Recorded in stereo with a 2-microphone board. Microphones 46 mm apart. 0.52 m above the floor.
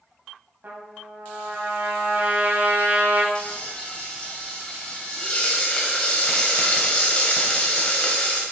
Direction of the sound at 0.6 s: 50° right (ahead or behind).